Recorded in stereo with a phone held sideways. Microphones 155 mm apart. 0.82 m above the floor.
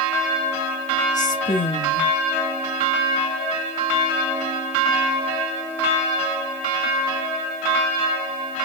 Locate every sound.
1.1 s a woman speaking: 55° left (ahead or behind), 1.5 m